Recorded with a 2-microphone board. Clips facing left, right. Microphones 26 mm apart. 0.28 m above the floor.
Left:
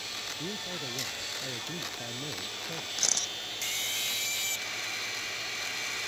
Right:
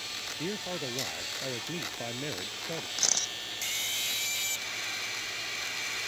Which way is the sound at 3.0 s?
10° right (ahead or behind).